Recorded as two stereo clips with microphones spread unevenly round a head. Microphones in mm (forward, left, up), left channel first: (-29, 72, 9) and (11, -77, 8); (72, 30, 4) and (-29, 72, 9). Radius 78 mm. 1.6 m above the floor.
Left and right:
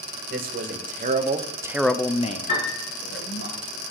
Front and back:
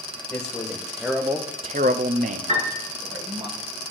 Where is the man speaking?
105° right, 2 m; by 3.5 s 115° left, 2.0 m.